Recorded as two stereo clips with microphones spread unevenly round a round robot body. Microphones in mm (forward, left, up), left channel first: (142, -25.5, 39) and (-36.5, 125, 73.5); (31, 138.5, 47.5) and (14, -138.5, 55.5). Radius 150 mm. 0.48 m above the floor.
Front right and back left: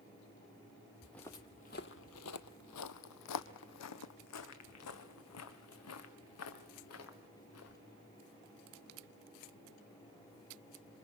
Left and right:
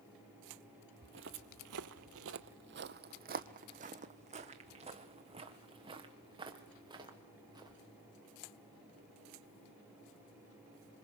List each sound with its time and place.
1.0 s footsteps: 140° right, 0.7 m; by 7.8 s 20° right, 3 m